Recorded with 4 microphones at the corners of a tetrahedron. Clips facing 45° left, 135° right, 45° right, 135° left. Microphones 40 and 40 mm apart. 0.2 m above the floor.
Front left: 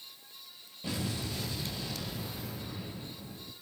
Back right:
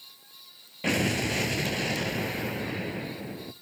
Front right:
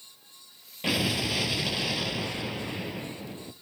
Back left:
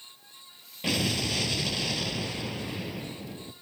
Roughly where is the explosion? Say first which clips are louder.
Back right 10 dB, front right 1 dB; behind right.